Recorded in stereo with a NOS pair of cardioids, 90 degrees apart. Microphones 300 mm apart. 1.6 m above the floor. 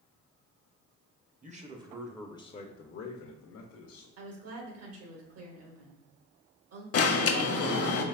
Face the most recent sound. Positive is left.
turn(degrees=50)